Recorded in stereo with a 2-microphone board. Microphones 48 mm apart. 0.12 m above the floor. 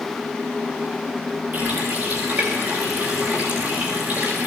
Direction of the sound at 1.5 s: 45° right (ahead or behind).